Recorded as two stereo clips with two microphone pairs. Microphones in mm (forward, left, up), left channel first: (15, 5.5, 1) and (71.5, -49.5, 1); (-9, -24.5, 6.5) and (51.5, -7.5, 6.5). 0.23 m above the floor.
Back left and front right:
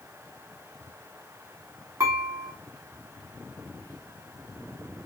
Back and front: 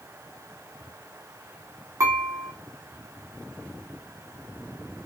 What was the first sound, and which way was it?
Dishes clattering, straight ahead.